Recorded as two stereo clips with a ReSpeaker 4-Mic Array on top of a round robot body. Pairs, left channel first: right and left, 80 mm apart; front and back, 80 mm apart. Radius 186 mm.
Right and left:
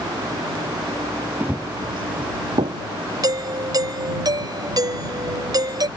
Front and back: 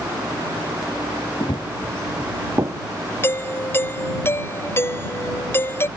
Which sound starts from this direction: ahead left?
A doorbell, at 3.2 s.